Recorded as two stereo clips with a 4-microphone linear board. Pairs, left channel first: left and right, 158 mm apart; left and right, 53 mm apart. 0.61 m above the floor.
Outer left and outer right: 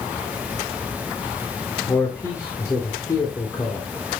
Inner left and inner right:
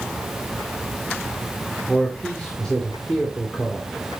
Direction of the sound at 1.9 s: 20° left (ahead or behind).